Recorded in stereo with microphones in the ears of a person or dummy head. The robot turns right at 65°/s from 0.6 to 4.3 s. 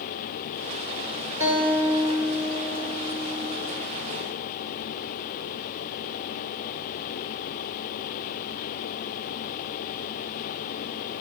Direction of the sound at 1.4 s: 20° right.